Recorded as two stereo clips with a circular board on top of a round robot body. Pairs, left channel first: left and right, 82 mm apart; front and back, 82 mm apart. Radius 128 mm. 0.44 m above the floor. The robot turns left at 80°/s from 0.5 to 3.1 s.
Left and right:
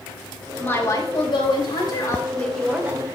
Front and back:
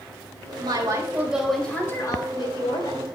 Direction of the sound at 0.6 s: 160° left.